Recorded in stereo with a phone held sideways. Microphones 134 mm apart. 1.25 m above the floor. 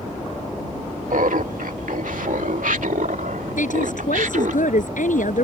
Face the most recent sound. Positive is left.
turn(degrees=75)  # may be behind; listen again after turning